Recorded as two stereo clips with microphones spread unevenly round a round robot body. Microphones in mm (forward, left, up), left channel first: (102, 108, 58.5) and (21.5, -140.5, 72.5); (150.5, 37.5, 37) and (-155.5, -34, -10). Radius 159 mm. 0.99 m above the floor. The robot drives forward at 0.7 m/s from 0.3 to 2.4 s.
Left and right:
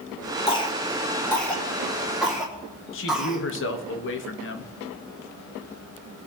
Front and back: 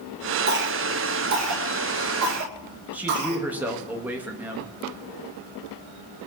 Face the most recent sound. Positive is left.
turn(degrees=110)